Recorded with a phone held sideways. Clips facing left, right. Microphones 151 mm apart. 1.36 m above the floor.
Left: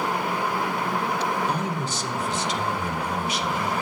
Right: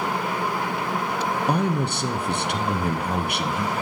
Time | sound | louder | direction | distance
1.5 | a man speaking | right 4 dB | 60° right (ahead or behind) | 0.7 m